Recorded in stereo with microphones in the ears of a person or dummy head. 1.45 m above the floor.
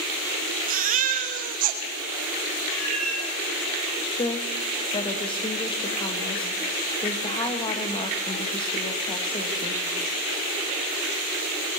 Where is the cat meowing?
10° left (ahead or behind), 9.5 m.